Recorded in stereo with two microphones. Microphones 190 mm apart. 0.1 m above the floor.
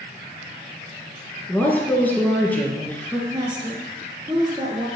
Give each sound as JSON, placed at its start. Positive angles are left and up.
{"t": 1.5, "sound": "a woman speaking", "side_deg": 10, "distance_m": 1.3}
{"t": 3.3, "sound": "a woman speaking", "side_deg": -25, "distance_m": 1.5}